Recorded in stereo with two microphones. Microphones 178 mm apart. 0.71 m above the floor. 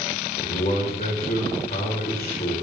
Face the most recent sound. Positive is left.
turn(degrees=60)  # may be behind; listen again after turning